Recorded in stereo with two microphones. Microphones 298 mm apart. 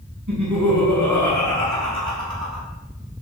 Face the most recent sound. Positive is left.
turn(degrees=-60)  # may be behind; listen again after turning